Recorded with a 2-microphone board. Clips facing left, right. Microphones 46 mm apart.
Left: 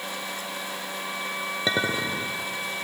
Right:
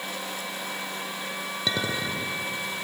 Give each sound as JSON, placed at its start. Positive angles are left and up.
{"t": 1.7, "sound": "a clink", "side_deg": 25, "distance_m": 1.1}